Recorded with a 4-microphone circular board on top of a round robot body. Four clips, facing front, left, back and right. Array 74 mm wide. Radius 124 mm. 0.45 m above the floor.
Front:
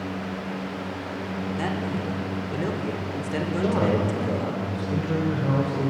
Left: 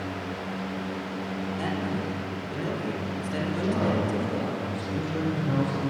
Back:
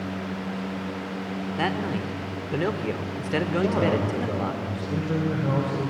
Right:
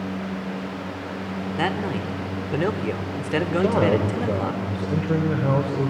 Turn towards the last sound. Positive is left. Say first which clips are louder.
# right 6 dB, front 2 dB
turn(degrees=-95)